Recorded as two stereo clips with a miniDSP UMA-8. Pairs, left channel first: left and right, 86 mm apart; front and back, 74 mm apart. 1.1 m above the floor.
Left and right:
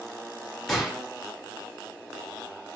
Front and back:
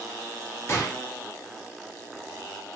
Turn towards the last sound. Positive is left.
turn(degrees=5)